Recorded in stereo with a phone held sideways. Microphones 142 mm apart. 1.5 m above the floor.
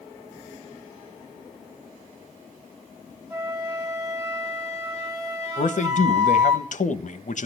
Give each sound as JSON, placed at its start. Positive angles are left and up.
{"t": 3.3, "sound": "a flute", "side_deg": -25, "distance_m": 7.5}
{"t": 5.6, "sound": "a man speaking", "side_deg": 60, "distance_m": 1.2}